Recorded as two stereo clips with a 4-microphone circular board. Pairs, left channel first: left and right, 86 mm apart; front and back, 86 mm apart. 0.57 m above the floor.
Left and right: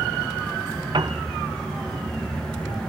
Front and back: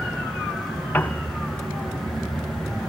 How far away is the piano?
About 0.8 m.